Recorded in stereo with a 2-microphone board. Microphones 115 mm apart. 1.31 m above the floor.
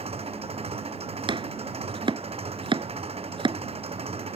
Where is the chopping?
45° right (ahead or behind).